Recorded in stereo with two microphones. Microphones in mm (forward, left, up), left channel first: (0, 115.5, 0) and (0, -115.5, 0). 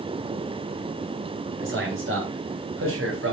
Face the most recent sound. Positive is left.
turn(degrees=-65)  # may be behind; listen again after turning